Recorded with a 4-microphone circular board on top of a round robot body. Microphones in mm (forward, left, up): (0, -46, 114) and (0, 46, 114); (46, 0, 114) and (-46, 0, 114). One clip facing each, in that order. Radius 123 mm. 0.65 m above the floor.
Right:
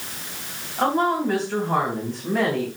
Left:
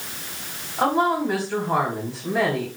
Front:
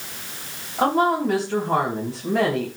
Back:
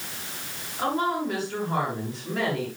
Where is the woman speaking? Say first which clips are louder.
Even, front 6 dB; 10° left, 4 m.